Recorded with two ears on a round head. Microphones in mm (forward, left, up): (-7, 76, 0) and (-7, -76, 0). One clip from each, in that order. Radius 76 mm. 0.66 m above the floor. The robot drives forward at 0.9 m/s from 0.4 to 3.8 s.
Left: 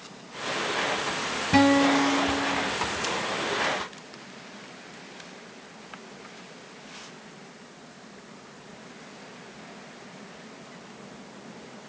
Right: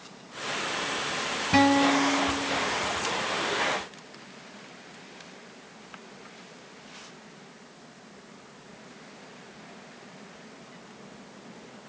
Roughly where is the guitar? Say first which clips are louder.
Left 1 dB; centre.